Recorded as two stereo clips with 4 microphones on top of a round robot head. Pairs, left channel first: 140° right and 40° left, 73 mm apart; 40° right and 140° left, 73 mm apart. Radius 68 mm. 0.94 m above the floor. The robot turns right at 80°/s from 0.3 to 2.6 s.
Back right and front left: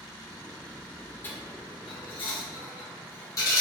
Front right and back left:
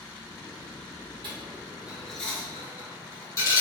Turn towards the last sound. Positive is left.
turn(degrees=-90)